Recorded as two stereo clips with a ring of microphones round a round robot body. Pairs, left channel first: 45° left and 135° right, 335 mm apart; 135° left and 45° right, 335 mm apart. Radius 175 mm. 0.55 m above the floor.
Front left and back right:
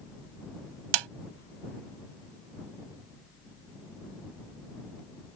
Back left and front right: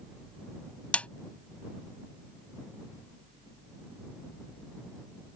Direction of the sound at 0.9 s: 140° right.